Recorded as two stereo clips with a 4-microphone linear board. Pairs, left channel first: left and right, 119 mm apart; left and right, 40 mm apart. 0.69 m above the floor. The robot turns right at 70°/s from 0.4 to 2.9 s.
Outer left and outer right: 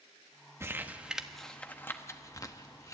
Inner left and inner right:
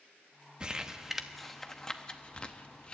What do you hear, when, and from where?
0.6 s crumpling: 20° right (ahead or behind), 0.9 m; by 2.9 s 25° left (ahead or behind), 0.9 m